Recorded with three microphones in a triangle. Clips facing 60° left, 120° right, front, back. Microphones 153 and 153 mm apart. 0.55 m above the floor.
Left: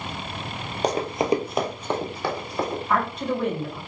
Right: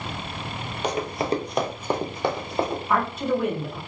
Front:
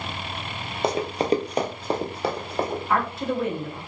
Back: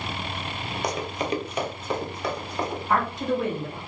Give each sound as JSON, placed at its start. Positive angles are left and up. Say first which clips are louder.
{"t": 0.8, "sound": "running footsteps", "louder": "left 3 dB, front 6 dB", "azimuth_deg": 45, "distance_m": 0.6}
{"t": 2.9, "sound": "a woman speaking", "louder": "right 1 dB, even", "azimuth_deg": 165, "distance_m": 1.0}